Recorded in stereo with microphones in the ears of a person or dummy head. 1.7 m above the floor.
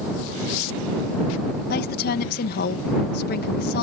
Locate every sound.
1.7 s a woman speaking: 55° left (ahead or behind)